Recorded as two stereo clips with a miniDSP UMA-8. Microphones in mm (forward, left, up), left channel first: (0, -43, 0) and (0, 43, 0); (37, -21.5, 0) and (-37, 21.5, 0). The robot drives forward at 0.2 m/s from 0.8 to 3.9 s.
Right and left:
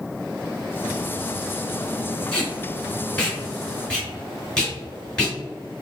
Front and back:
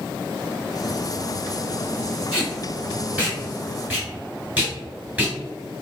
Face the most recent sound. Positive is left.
turn(degrees=-160)